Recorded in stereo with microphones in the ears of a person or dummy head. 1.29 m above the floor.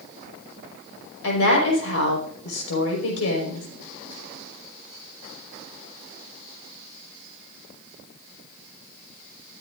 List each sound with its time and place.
1.2 s a woman speaking: 80° left, 5 m